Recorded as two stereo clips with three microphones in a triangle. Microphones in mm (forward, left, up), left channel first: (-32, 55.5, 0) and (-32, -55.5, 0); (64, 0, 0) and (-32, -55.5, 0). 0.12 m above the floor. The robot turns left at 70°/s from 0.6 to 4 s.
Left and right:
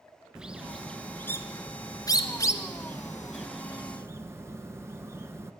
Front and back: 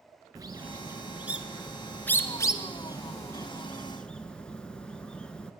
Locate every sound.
0.3 s a bird: 165° right, 1.2 m; by 5.5 s 45° right, 1.2 m